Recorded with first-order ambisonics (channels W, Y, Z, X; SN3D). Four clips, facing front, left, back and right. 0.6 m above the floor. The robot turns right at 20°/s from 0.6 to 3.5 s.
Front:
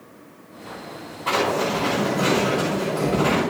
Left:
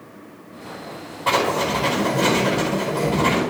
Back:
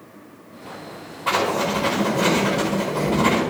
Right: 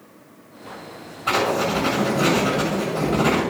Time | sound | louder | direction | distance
1.3 | writing | left 1 dB, back 1 dB | 90° left | 4.5 m